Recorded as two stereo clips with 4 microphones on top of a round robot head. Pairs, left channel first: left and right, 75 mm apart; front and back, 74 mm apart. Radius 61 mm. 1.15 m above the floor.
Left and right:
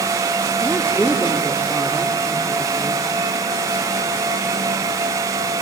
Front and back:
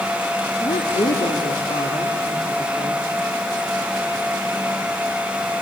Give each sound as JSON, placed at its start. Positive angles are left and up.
{"t": 0.6, "sound": "a woman speaking", "azimuth_deg": -5, "distance_m": 3.0}